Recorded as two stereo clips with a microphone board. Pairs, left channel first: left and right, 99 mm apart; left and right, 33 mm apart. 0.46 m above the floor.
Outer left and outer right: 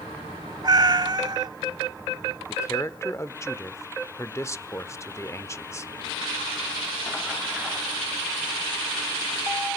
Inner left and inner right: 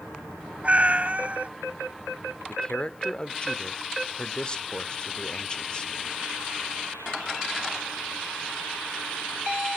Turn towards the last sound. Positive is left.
turn(degrees=30)  # may be behind; listen again after turning